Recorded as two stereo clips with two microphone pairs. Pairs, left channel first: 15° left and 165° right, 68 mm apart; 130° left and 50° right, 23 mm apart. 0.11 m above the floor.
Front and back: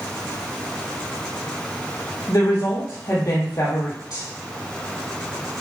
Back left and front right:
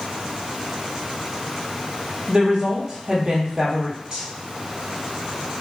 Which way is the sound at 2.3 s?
Straight ahead.